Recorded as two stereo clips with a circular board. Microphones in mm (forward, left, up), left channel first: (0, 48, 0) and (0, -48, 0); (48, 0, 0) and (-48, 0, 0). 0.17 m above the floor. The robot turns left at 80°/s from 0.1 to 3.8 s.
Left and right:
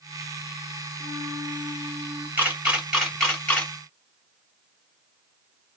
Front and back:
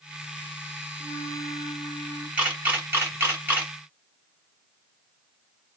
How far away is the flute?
About 1.4 m.